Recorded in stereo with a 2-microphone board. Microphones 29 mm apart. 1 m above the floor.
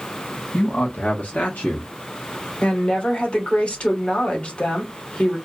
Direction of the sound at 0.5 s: 65° left (ahead or behind).